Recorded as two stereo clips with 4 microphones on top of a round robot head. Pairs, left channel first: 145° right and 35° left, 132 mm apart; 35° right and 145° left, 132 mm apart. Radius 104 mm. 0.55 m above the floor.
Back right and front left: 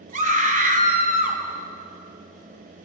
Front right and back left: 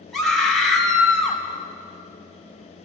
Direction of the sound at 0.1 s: 55° left.